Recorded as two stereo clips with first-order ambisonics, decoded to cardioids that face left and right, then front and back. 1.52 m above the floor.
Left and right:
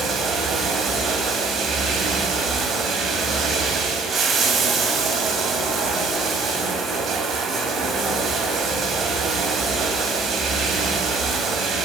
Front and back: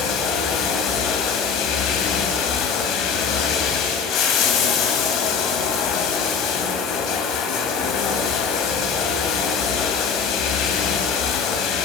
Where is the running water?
30° right, 3 m.